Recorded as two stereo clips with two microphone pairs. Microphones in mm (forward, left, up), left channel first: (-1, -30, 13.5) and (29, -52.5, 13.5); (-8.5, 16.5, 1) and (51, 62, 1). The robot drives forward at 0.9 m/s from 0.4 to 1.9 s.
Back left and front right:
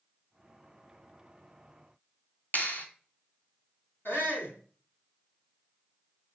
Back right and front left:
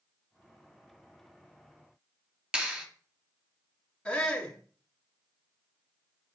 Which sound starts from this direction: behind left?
A shout, at 4.0 s.